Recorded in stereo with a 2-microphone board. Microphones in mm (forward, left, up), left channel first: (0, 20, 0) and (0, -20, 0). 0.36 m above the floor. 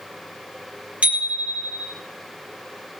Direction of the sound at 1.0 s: 35° right (ahead or behind).